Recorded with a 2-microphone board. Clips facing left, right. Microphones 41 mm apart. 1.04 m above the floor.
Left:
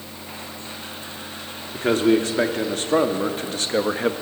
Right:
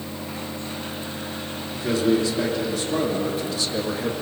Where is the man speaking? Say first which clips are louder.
Left 3 dB; 45° left (ahead or behind), 3 m.